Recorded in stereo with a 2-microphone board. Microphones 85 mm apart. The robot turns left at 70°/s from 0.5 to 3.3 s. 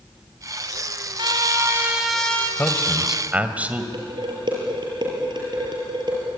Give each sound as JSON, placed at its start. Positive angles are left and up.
{"t": 1.2, "sound": "a trumpet", "azimuth_deg": -115, "distance_m": 3.0}
{"t": 2.6, "sound": "a man speaking", "azimuth_deg": 30, "distance_m": 2.0}
{"t": 3.9, "sound": "dishes clattering", "side_deg": -55, "distance_m": 6.5}